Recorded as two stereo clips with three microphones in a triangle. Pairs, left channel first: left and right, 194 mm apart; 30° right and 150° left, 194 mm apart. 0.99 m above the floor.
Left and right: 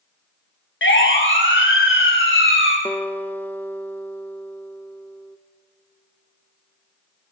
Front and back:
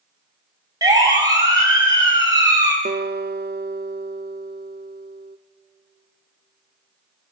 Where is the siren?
80° left, 5.5 m.